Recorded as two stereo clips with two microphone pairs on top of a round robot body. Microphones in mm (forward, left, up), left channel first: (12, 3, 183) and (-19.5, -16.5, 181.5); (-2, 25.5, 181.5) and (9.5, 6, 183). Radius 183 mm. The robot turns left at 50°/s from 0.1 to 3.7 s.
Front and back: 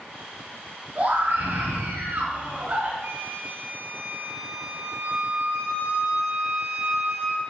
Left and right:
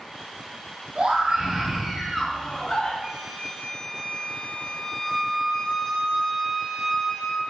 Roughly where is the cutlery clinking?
I don't hear cutlery clinking.